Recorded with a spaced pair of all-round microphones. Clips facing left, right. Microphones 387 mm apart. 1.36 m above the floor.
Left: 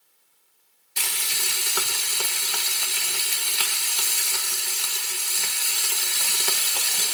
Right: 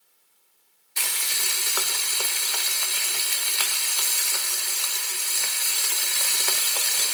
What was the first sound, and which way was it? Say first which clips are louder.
Frying: left 1 dB; 45° left (ahead or behind).